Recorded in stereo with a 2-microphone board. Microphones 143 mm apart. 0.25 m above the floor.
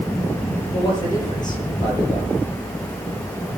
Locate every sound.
0.7 s a man speaking: 30° left (ahead or behind), 7.5 m